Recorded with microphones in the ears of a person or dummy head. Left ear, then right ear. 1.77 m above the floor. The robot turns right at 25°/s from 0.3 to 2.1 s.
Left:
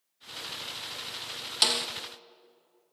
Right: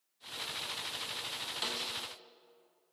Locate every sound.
1.6 s a snare drum: 40° left (ahead or behind), 1.3 m; by 1.9 s 45° left (ahead or behind), 1.3 m